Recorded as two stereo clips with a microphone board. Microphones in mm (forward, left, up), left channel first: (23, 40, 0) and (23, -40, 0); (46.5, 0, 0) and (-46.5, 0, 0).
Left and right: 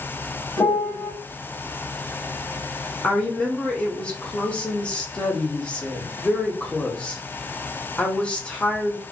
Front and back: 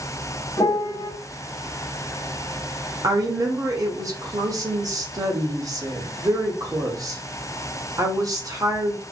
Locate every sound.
0.6 s a piano: 45° left, 1.2 m
3.0 s a woman speaking: 160° left, 0.9 m